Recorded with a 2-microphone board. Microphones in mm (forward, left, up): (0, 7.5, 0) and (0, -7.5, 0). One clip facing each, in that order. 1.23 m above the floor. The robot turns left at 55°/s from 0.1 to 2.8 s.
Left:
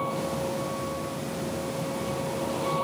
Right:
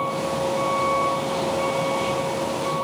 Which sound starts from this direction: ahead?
A vehicle, at 0.0 s.